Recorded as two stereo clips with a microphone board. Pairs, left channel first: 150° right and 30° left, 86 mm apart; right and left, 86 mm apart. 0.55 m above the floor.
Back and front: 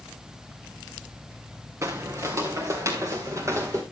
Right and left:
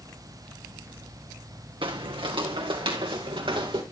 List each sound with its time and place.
1.8 s footsteps: 85° left, 1.9 m; by 3.8 s 80° left, 4 m